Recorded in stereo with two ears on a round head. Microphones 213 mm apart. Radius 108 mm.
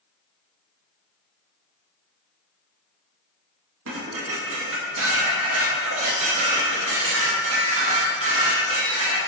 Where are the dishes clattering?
60° right (ahead or behind), 1.9 m.